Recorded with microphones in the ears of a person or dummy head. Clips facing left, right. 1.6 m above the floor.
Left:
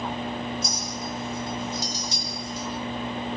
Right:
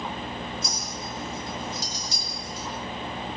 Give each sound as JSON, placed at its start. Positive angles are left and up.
{"t": 0.6, "sound": "a clink", "side_deg": 85, "distance_m": 5.5}